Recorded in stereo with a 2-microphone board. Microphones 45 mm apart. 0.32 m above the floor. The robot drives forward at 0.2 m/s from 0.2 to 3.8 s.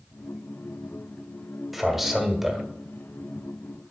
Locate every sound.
1.7 s a man speaking: 5° right (ahead or behind), 1.1 m